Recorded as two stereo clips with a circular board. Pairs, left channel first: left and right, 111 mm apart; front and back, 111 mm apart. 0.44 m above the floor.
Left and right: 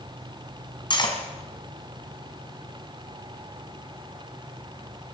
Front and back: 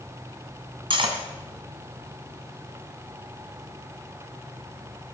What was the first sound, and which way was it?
Cutlery clinking, 140° left.